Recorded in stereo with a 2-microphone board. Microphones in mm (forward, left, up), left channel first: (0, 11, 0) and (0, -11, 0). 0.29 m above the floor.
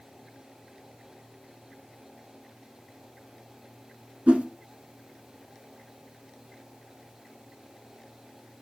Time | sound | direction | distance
4.3 | a whoosh | 85° right | 0.8 m